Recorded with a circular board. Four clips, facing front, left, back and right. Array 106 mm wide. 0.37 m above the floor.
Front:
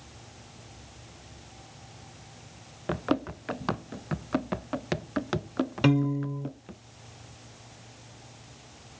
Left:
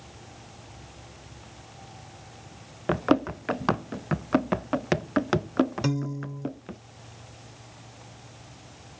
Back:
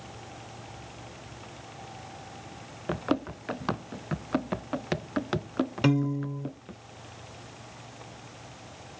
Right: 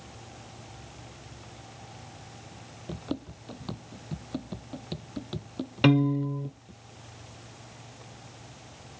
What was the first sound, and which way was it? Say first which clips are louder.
Running footsteps: left 13 dB, front 1 dB; 90° left.